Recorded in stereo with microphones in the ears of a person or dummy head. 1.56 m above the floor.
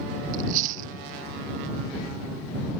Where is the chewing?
50° right (ahead or behind).